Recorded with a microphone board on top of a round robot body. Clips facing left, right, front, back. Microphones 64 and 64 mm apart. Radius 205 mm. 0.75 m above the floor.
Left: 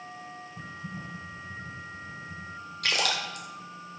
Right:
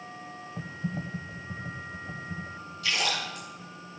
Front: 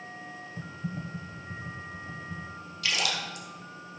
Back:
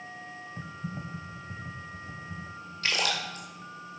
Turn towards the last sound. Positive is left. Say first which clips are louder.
# left 1 dB, back 1 dB
turn(degrees=125)